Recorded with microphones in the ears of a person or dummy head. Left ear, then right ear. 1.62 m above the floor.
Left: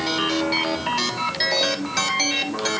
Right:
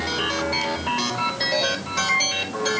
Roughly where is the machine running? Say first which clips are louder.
Left 2 dB; left.